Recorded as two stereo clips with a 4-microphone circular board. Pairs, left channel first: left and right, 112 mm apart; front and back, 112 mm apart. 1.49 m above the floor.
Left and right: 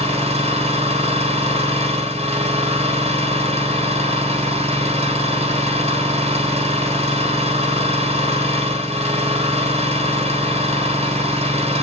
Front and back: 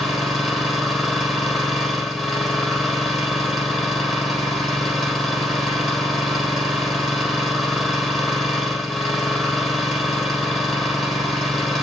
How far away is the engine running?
About 3 m.